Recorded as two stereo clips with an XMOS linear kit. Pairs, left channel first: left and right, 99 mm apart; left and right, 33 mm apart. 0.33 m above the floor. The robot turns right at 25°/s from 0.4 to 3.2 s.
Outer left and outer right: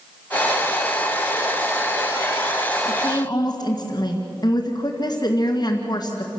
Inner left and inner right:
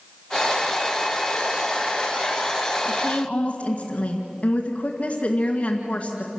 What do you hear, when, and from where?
2.9 s a woman speaking: 50° left (ahead or behind), 2 m; by 6.3 s 40° left (ahead or behind), 2 m